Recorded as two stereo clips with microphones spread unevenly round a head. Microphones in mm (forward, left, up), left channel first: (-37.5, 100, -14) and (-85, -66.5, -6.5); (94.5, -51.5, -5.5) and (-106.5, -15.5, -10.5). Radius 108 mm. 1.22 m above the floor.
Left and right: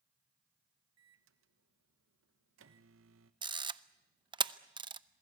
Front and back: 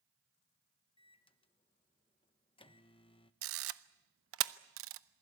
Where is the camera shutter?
170° right, 0.8 m.